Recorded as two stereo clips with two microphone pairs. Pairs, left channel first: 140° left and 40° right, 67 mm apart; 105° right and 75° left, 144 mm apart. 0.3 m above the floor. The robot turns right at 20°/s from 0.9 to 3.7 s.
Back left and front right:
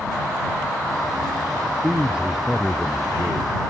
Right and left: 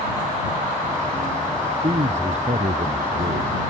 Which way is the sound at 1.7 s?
30° left.